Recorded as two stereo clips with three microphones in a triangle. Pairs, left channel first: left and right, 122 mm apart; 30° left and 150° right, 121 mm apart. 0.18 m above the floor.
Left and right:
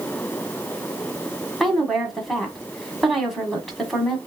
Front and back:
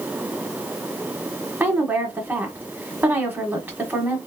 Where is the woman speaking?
Straight behind, 1.4 m.